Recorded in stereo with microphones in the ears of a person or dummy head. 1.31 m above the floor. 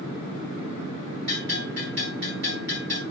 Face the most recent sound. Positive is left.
turn(degrees=-65)  # may be behind; listen again after turning